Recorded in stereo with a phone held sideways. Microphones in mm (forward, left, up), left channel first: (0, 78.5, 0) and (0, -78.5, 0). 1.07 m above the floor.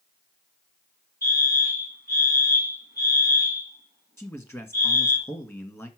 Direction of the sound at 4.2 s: 15° left (ahead or behind).